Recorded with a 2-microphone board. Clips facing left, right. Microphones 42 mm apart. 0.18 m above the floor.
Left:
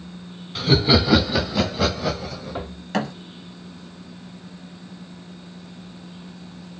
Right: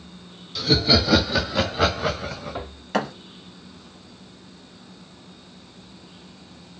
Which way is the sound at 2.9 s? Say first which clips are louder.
Even; 5° right (ahead or behind).